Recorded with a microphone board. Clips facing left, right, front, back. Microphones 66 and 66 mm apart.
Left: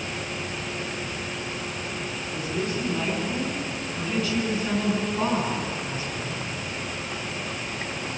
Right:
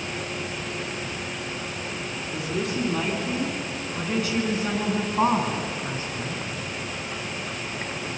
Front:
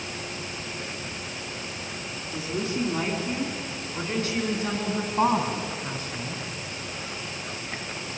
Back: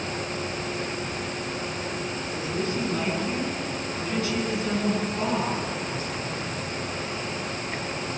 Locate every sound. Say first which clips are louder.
2.3 s a woman speaking: right 1 dB, front 1 dB; 75° right, 8 m; by 6.4 s 40° right, 9 m